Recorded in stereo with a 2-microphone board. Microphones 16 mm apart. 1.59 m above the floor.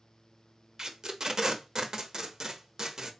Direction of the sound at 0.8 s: 30° right (ahead or behind).